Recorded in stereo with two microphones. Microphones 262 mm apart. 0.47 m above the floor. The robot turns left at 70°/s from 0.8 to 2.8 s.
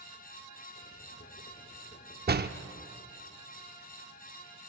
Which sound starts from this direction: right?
A door slam, at 2.3 s.